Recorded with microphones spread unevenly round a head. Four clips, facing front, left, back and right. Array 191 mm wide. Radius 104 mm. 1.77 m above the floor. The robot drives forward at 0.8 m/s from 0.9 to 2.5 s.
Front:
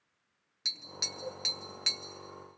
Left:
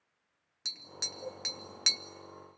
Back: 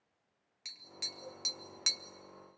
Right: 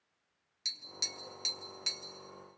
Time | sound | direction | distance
0.7 | tapping | 40° left | 1.1 m